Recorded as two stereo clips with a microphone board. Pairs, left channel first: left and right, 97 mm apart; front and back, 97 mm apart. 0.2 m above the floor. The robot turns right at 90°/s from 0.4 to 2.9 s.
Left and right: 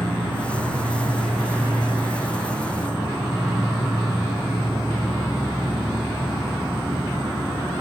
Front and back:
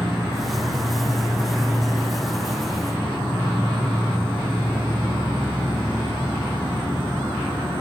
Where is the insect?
110° left, 0.8 m; by 7.8 s 25° right, 0.8 m.